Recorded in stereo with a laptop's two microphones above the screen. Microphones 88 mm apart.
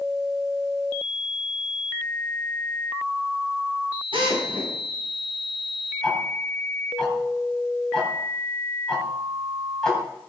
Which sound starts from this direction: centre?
Ticking, at 6.0 s.